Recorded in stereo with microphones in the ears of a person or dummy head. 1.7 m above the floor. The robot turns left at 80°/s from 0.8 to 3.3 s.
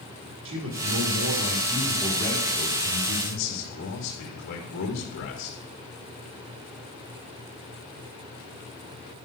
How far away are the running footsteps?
I don't hear running footsteps.